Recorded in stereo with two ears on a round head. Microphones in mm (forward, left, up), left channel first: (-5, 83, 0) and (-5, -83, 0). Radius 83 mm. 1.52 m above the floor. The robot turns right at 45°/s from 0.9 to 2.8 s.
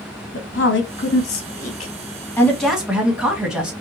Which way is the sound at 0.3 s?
75° left (ahead or behind).